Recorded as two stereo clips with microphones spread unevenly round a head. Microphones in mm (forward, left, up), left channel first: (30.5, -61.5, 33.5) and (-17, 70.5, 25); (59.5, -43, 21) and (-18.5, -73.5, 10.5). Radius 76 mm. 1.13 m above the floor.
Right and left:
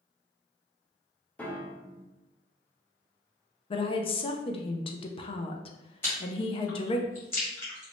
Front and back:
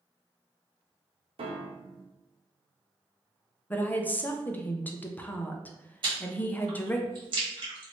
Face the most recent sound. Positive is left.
turn(degrees=-145)